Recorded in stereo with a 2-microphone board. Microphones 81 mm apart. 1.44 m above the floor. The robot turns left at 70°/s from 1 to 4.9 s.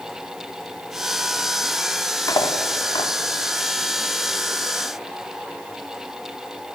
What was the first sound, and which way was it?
Cutlery clinking, 45° left (ahead or behind).